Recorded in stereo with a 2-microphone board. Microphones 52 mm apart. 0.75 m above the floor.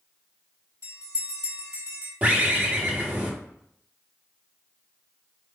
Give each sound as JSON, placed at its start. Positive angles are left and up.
{"t": 0.8, "sound": "a bell", "side_deg": -80, "distance_m": 1.7}
{"t": 2.2, "sound": "a bird", "side_deg": -30, "distance_m": 1.1}